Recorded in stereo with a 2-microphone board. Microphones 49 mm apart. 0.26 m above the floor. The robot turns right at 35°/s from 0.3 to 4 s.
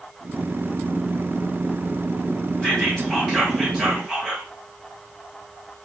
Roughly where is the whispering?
Behind left.